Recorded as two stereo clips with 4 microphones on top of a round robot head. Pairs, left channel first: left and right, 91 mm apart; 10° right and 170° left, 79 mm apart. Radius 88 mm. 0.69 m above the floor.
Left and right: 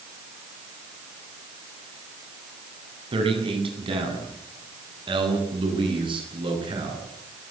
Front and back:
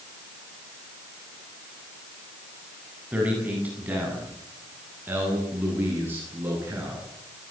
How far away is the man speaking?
About 8 m.